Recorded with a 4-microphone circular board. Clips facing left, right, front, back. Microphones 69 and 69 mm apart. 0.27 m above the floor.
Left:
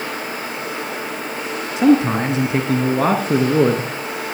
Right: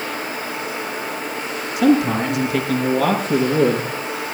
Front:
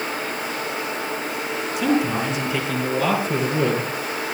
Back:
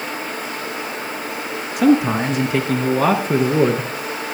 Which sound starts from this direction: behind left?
A man speaking, at 1.8 s.